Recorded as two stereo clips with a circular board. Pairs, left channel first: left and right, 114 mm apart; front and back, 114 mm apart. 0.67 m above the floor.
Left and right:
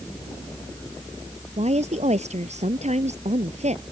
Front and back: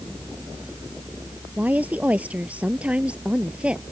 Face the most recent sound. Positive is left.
turn(degrees=-100)